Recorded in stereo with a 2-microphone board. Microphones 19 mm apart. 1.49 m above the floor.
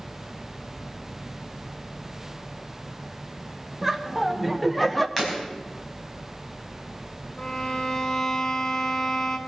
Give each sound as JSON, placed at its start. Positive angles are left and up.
{"t": 3.8, "sound": "laughter", "side_deg": -10, "distance_m": 1.7}
{"t": 5.2, "sound": "breaking glass", "side_deg": 10, "distance_m": 5.0}
{"t": 7.4, "sound": "a violin", "side_deg": 30, "distance_m": 1.2}